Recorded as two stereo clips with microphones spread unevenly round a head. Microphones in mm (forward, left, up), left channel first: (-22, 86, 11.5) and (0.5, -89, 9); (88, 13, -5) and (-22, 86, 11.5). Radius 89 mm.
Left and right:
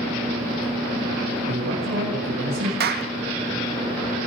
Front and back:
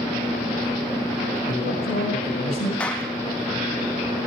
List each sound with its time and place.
1.5 s a man speaking: 45° right, 8.5 m
2.8 s a clap: 120° right, 1.8 m